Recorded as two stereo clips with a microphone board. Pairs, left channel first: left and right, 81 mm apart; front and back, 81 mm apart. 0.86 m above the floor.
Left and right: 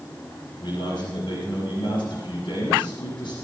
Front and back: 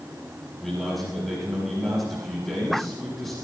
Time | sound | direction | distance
0.6 | a man speaking | 90° left | 6.5 m